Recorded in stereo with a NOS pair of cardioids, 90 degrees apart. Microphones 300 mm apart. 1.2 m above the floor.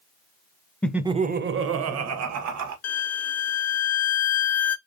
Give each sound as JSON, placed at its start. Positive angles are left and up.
{"t": 0.8, "sound": "laughter", "azimuth_deg": 5, "distance_m": 0.6}
{"t": 2.8, "sound": "a violin", "azimuth_deg": 55, "distance_m": 0.6}